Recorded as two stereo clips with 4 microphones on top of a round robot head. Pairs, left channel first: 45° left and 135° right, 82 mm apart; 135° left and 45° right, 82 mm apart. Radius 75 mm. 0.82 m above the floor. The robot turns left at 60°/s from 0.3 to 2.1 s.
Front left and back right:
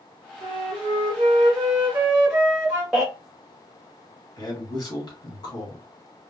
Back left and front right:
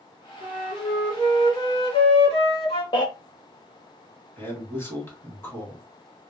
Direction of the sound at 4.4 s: 75° left.